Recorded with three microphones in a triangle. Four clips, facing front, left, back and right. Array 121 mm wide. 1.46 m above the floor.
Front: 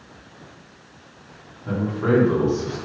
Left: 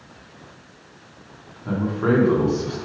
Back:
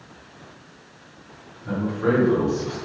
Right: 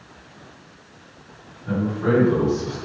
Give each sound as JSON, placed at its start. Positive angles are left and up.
{"t": 1.6, "sound": "a man speaking", "azimuth_deg": 70, "distance_m": 2.5}